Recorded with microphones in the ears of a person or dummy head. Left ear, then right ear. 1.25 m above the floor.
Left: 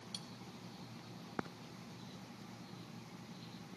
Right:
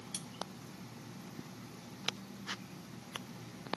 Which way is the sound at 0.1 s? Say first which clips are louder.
Right 2 dB; 15° right (ahead or behind).